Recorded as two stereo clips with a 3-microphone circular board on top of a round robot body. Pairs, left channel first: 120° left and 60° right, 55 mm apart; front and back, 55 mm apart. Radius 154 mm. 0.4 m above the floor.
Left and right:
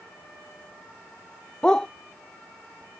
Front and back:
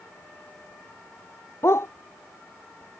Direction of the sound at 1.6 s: 45° left.